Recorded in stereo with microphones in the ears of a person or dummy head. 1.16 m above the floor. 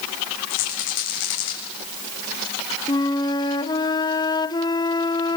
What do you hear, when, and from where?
0.5 s a rattle: 65° left (ahead or behind), 7 m
2.9 s a flute: 20° left (ahead or behind), 0.8 m